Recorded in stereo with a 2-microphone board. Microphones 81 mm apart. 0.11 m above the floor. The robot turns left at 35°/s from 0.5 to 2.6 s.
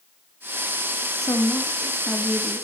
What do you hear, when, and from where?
1.2 s a woman speaking: 50° left, 4 m; by 2.6 s straight ahead, 4 m